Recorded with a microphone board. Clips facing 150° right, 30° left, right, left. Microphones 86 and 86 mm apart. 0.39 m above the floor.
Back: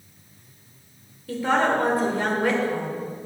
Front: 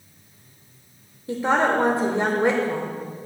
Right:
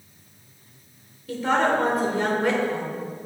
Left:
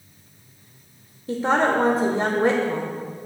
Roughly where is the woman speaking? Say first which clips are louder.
Front 1 dB, left 2 dB; left.